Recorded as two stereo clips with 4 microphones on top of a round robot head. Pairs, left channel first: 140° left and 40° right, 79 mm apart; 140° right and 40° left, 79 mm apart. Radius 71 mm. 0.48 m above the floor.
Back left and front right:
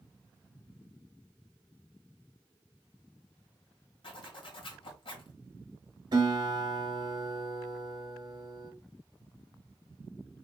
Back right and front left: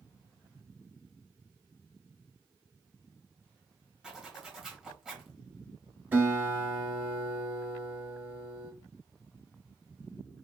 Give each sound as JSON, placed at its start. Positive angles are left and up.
{"t": 4.0, "sound": "a zipper", "azimuth_deg": 125, "distance_m": 2.0}
{"t": 6.1, "sound": "a guitar", "azimuth_deg": -20, "distance_m": 2.5}